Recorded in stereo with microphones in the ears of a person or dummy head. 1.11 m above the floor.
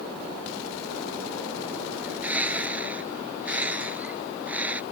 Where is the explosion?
No explosion in this recording.